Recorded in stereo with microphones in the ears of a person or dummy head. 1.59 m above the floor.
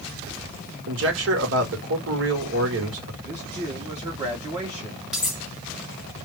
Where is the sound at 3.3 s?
30° right (ahead or behind), 1.5 m.